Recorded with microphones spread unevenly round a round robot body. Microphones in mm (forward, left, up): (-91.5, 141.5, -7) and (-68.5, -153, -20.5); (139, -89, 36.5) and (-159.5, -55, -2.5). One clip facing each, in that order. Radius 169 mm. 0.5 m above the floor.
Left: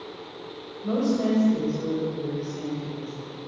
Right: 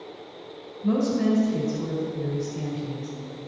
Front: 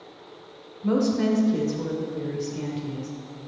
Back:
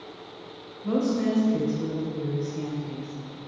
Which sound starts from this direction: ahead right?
A woman speaking, at 0.8 s.